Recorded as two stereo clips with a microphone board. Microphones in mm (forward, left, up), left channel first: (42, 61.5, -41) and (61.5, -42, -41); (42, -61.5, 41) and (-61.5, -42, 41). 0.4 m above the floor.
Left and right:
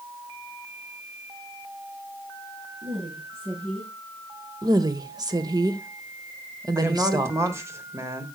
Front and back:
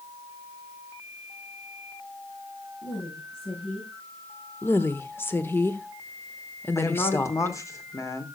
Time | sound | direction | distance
2.8 | a woman speaking | 45° right | 5 m
4.6 | a woman speaking | 70° right | 1.1 m
6.8 | a woman speaking | 45° right | 1.6 m